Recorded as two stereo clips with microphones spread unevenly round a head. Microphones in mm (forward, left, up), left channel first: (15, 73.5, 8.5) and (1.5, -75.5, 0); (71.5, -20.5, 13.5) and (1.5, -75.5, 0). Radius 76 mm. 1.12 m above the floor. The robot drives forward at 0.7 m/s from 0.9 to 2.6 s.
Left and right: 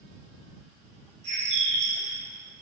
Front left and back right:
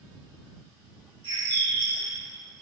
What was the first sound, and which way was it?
A bird, 145° right.